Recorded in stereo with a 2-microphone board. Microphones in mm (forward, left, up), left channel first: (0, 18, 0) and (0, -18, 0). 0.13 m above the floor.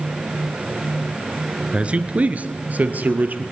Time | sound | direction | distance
1.7 | a man speaking | 35° right (ahead or behind) | 1.3 m